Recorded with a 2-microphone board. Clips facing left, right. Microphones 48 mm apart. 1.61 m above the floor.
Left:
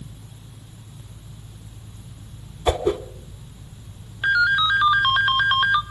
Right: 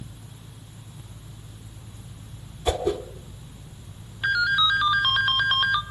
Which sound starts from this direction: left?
A whoosh, at 2.7 s.